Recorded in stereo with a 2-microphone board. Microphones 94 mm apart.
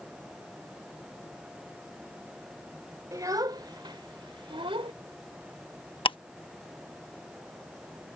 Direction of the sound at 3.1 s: 35° right (ahead or behind).